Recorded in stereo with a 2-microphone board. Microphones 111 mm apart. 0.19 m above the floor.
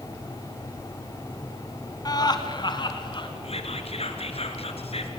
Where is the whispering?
65° left (ahead or behind), 2.5 m.